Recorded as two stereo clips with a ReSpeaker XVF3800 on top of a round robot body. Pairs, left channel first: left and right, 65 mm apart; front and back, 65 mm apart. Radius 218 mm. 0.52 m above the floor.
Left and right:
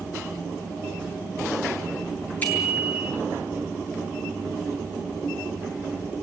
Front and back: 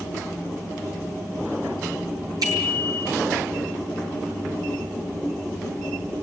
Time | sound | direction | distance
2.4 | a bicycle bell | 160° left | 8.5 m